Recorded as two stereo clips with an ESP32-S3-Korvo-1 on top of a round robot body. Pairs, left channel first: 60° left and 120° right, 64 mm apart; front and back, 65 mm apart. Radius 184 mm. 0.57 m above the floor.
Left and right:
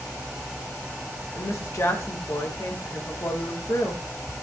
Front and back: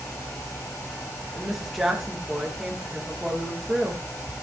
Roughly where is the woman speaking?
Left.